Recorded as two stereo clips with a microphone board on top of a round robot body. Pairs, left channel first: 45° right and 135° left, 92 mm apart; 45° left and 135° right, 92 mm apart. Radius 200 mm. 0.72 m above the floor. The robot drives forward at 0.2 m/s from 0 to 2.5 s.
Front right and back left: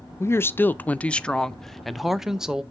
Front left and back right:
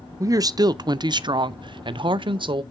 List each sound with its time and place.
0.2 s a woman speaking: 95° right, 0.6 m; by 2.6 s 140° right, 0.8 m